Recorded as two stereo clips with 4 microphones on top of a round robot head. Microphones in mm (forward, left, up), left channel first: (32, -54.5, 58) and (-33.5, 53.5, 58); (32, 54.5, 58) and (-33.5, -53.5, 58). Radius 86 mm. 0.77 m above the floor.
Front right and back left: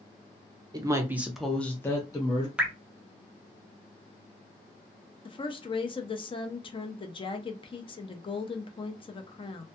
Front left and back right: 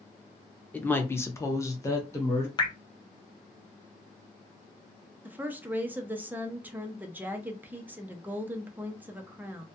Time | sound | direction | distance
0.7 | a woman speaking | 125° left | 0.7 m
2.6 | dripping | 50° left | 0.7 m
5.2 | a woman speaking | 55° right | 0.6 m